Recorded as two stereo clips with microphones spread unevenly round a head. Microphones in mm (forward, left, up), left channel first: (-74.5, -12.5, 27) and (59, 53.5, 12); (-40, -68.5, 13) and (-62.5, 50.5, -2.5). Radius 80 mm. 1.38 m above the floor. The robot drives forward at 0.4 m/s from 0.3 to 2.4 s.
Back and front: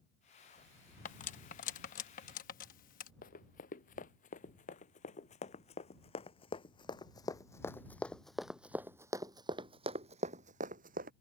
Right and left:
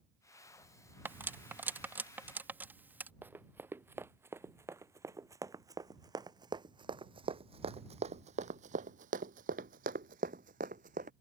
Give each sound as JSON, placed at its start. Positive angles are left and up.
{"t": 1.1, "sound": "cutlery clinking", "azimuth_deg": 175}
{"t": 3.2, "sound": "running footsteps", "azimuth_deg": 175}